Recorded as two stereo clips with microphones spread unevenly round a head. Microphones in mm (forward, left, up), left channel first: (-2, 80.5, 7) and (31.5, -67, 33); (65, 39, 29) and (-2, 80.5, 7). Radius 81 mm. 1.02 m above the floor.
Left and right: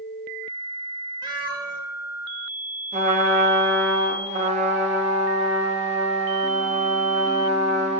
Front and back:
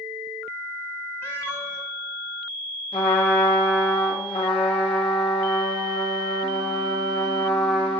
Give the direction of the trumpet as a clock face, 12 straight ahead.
1 o'clock.